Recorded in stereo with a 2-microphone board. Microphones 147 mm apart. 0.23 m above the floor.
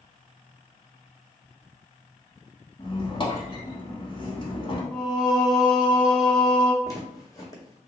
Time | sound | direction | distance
2.8 | a squeak | 40° left (ahead or behind) | 0.7 m
4.9 | singing | centre (ahead or behind) | 0.8 m
6.8 | footsteps | 25° left (ahead or behind) | 0.9 m